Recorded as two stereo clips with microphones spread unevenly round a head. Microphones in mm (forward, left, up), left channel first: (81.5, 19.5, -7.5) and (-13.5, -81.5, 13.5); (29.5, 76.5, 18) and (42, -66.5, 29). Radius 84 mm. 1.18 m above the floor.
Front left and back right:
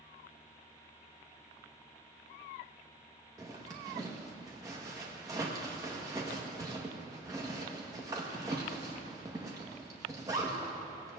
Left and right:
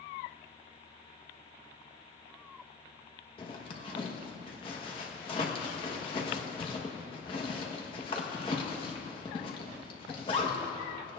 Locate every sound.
3.4 s a zipper: 155° left, 1.3 m